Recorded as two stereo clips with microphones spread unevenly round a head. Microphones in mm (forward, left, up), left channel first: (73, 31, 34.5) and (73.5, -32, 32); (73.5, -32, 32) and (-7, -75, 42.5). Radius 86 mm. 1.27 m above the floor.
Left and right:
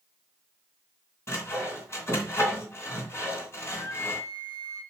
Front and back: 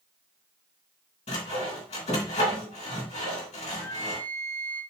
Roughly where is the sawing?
Ahead left.